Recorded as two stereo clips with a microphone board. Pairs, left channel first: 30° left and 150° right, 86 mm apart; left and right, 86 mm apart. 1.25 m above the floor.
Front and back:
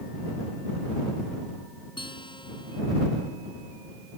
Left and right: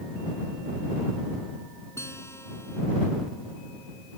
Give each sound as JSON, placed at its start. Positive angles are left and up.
{"t": 2.0, "sound": "a guitar", "azimuth_deg": 35}